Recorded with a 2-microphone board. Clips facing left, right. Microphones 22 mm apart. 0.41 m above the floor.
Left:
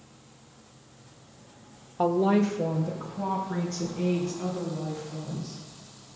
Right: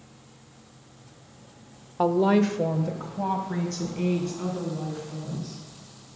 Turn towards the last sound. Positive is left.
turn(degrees=-50)  # may be behind; listen again after turning